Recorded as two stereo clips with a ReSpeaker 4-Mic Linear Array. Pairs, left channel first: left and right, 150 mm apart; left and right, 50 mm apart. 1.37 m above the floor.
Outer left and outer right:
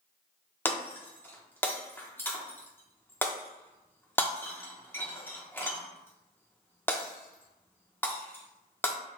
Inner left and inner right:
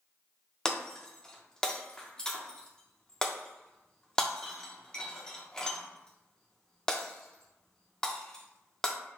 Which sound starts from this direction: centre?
Breaking glass, at 0.7 s.